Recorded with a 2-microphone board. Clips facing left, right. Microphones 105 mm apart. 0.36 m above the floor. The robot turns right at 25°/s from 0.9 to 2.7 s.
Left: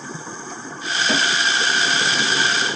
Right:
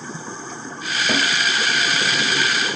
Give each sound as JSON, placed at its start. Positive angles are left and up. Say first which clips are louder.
{"t": 1.1, "sound": "a snare drum", "louder": "even", "side_deg": -5, "distance_m": 1.3}